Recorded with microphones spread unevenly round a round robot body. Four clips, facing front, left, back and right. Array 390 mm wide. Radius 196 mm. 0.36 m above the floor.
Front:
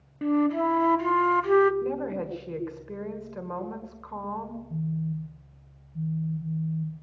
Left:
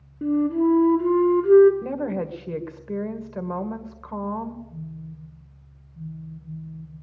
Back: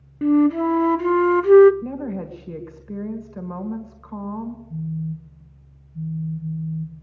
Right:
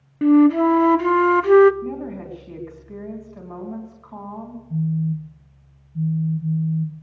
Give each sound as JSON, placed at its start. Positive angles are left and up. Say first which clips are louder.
{"t": 0.2, "sound": "a flute", "louder": "right 7 dB, back 7 dB", "azimuth_deg": -95, "distance_m": 0.5}
{"t": 1.8, "sound": "a woman speaking", "louder": "left 3 dB, even", "azimuth_deg": 100, "distance_m": 1.8}
{"t": 4.7, "sound": "a phone buzzing", "louder": "right 15 dB, front 2 dB", "azimuth_deg": -85, "distance_m": 1.1}